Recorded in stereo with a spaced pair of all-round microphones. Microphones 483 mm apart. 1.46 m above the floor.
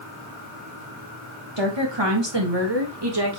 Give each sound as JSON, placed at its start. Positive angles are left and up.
{"t": 1.6, "sound": "a woman speaking", "side_deg": -65, "distance_m": 3.0}